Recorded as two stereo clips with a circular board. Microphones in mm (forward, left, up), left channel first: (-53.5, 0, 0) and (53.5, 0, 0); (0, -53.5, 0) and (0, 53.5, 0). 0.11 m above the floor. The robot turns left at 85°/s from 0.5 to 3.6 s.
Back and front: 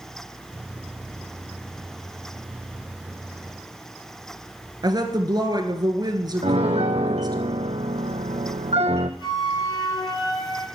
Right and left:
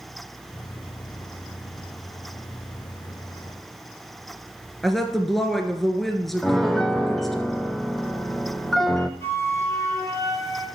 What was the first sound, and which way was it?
A woman speaking, 5° right.